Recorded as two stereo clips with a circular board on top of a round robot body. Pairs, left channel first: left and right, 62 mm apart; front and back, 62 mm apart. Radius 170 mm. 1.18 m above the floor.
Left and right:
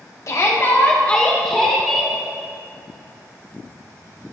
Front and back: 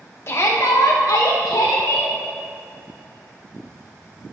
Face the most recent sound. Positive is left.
turn(degrees=-5)